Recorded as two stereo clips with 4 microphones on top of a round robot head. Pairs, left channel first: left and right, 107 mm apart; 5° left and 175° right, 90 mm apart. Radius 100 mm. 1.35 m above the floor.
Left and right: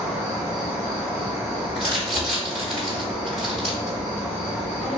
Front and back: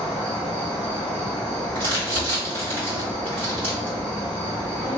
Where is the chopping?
I don't hear chopping.